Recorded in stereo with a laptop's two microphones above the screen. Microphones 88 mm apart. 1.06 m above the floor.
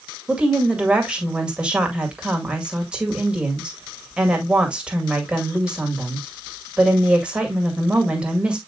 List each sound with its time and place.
0.3 s a woman speaking: 10° right (ahead or behind), 2.0 m